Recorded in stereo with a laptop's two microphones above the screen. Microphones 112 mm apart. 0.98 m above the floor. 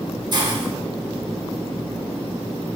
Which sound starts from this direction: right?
A hiss, at 0.3 s.